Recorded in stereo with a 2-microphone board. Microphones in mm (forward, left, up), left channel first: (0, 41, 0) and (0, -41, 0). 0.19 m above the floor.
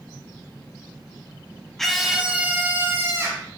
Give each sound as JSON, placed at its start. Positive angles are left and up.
{"t": 1.8, "sound": "a scream", "side_deg": 5, "distance_m": 1.3}